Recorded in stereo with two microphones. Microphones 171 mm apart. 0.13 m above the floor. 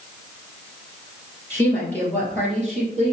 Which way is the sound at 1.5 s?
15° left (ahead or behind).